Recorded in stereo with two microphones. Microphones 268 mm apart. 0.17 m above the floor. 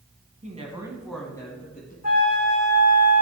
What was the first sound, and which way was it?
A woman speaking, 30° right (ahead or behind).